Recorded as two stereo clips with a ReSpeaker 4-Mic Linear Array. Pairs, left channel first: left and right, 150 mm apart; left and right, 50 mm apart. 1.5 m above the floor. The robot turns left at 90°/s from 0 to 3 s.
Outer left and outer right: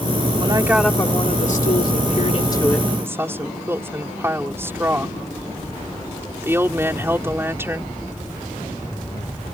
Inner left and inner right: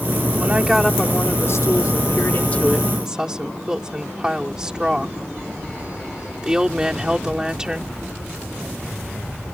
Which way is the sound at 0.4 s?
140° right.